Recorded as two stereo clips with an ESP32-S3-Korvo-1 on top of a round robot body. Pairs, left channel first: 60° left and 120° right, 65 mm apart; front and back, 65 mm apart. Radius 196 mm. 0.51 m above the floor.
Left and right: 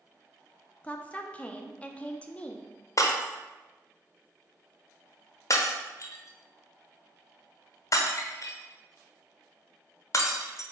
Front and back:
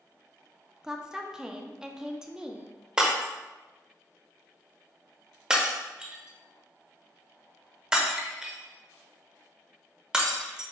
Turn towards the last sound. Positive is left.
turn(degrees=100)